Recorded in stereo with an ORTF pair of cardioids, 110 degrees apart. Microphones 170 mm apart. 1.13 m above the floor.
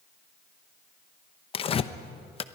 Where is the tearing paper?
35° left, 0.8 m.